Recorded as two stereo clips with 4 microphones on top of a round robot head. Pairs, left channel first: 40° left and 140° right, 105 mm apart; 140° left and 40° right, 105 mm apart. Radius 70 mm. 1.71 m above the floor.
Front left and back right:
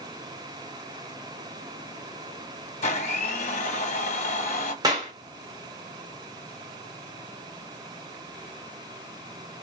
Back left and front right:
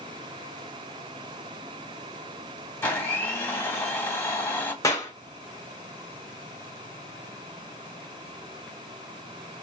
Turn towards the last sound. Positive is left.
turn(degrees=-175)